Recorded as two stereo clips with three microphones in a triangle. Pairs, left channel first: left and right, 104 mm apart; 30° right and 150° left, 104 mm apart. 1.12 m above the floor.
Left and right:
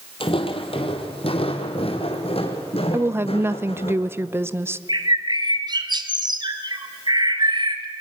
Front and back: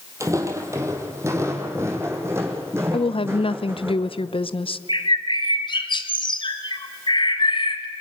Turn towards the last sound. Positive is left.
turn(degrees=-55)